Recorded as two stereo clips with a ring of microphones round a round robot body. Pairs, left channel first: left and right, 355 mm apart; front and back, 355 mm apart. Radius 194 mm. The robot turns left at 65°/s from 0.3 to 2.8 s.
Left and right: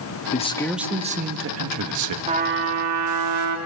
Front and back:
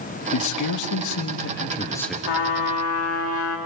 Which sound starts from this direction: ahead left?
A man speaking, at 0.3 s.